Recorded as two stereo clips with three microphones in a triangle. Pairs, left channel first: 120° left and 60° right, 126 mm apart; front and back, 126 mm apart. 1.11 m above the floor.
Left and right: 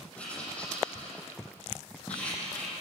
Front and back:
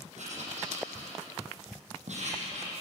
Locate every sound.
0.2 s writing: 160° right, 8 m